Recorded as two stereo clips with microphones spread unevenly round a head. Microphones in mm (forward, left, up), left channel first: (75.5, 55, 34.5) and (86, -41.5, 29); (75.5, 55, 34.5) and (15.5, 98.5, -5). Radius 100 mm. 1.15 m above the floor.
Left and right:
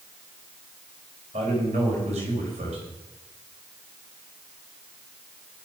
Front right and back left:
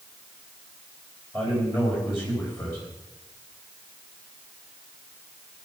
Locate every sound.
1.3 s a man speaking: 115° right, 5 m